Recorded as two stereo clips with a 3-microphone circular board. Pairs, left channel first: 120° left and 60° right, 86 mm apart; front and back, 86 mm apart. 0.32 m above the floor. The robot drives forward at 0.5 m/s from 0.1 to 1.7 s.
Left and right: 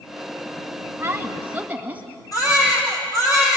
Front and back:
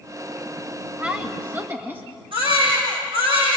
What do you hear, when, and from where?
1.0 s a woman speaking: 110° right, 1.7 m; by 2.0 s 125° right, 1.8 m
2.3 s a baby crying: 170° left, 7 m